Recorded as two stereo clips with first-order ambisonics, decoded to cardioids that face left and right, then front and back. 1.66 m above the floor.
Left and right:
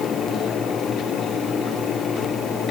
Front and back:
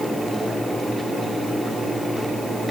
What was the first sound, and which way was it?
Only background noise.